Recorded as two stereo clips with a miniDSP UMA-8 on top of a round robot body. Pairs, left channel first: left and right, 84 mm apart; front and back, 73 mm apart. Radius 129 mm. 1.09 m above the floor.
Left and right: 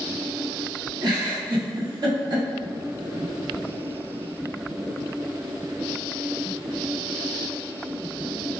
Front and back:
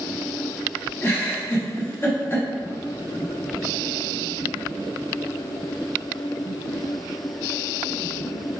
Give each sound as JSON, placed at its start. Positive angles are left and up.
{"t": 1.0, "sound": "a giggle", "azimuth_deg": -55, "distance_m": 0.9}